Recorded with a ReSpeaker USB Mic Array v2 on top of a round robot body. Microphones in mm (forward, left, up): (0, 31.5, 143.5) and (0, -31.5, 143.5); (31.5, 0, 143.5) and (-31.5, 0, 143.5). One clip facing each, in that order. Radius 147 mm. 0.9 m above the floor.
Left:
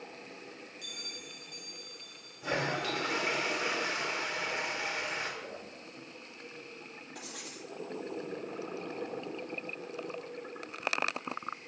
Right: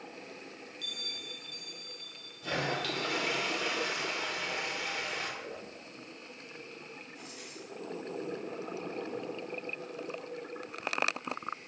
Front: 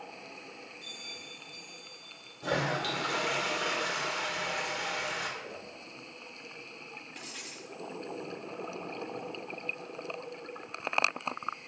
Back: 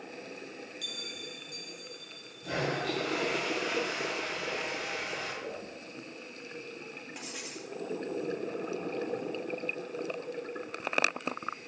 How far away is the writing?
About 2 m.